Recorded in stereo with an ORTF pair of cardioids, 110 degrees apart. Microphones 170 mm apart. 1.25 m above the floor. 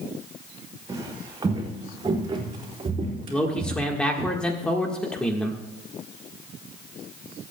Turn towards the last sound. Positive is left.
turn(degrees=5)